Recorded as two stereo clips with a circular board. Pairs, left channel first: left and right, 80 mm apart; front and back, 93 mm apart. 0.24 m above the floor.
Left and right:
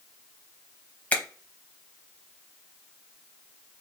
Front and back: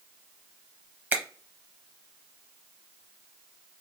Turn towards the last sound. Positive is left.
turn(degrees=135)